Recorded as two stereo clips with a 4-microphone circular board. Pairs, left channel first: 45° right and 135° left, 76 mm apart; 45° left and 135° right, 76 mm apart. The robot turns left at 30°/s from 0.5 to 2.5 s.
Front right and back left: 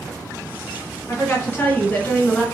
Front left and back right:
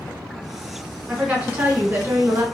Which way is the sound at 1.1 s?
75° right.